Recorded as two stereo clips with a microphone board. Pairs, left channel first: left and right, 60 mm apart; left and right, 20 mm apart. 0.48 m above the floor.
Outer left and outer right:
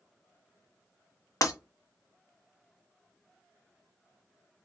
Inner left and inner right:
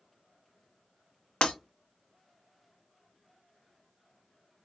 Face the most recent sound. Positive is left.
turn(degrees=70)  # may be behind; listen again after turning